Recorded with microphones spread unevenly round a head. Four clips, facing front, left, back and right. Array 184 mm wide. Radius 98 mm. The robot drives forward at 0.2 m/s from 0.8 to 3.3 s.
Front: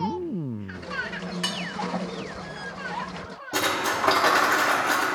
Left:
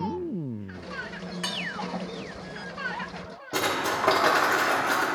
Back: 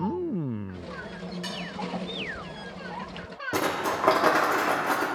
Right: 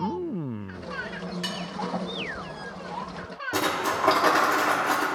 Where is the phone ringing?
I don't hear a phone ringing.